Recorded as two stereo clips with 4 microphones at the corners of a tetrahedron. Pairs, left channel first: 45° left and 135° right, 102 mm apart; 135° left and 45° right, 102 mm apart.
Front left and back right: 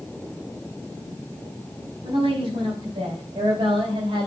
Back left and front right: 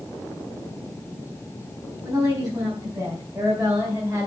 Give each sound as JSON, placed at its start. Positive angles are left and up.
{"t": 2.0, "sound": "a woman speaking", "azimuth_deg": -100, "distance_m": 5.5}